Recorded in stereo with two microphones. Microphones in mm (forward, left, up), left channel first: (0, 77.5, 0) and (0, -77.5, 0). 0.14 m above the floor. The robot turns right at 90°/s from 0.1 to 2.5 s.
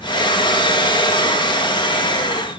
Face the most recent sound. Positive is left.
No sound to turn to.